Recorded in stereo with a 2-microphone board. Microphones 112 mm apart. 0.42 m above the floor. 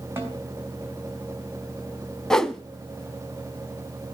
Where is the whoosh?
5° left (ahead or behind), 0.6 m.